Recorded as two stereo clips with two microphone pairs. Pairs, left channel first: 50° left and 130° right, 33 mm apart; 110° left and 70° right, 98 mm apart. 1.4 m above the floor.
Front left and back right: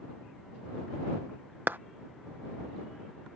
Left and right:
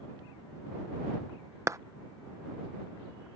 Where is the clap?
130° right.